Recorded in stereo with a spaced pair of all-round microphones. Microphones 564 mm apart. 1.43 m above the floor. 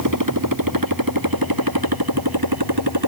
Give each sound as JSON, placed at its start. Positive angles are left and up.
{"t": 0.0, "sound": "a motorcycle", "side_deg": -30}